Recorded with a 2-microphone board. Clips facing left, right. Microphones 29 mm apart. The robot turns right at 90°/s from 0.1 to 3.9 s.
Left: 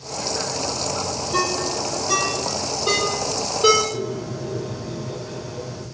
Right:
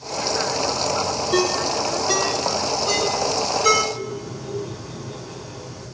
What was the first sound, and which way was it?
A ringtone, 80° right.